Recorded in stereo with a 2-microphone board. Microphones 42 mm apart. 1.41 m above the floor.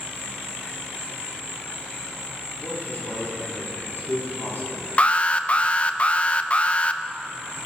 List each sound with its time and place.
0.0 s an insect: 70° right (ahead or behind), 4.5 m
2.6 s a man speaking: 65° left (ahead or behind), 4 m
5.0 s an alarm: 30° left (ahead or behind), 0.5 m